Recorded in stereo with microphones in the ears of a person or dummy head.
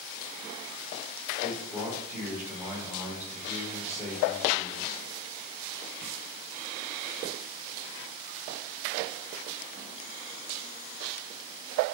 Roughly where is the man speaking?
Centre.